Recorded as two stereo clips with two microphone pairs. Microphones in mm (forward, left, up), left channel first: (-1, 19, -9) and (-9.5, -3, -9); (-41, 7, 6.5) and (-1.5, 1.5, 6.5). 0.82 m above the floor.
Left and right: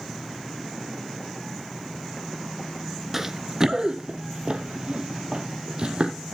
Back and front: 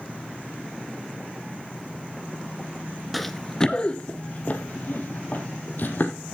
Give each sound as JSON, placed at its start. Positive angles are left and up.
{"t": 3.1, "sound": "running footsteps", "azimuth_deg": -100, "distance_m": 0.8}